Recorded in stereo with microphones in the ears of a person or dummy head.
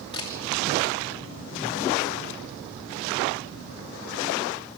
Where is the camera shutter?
25° left (ahead or behind), 2.5 m.